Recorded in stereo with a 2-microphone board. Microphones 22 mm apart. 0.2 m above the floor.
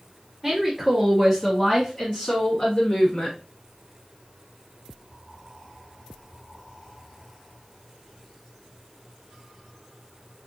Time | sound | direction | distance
0.4 | a woman speaking | centre (ahead or behind) | 1.8 m